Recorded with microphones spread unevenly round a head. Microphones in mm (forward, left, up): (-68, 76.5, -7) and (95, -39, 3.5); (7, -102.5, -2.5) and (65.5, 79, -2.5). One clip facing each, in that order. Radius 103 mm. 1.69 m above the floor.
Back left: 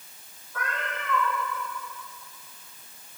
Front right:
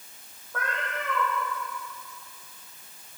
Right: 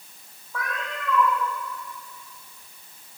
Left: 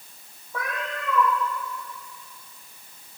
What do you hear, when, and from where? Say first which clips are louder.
0.5 s a cat meowing: front right 1 dB, left 1 dB; 5° left, 10 m